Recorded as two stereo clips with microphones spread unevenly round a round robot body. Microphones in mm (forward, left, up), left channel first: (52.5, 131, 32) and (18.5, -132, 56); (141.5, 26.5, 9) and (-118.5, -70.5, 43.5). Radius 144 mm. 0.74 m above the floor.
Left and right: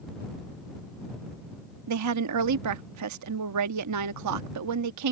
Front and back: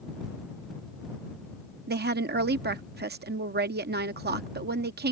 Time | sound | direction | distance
1.9 | a woman speaking | 105° right | ?